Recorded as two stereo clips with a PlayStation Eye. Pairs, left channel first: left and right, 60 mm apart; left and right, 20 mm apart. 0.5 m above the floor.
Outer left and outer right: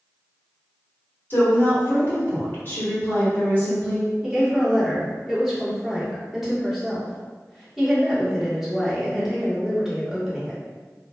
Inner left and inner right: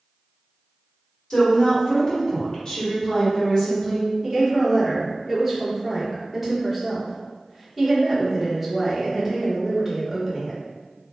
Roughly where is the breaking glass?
I don't hear breaking glass.